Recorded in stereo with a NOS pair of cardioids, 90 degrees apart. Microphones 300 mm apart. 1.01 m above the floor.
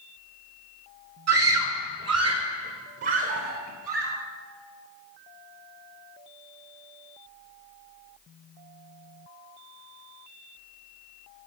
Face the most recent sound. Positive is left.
turn(degrees=-50)